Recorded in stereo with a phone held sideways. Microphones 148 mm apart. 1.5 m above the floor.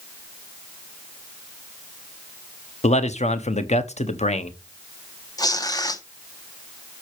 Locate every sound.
2.8 s a man speaking: 50° left (ahead or behind), 0.9 m
5.4 s tearing paper: 25° left (ahead or behind), 1.0 m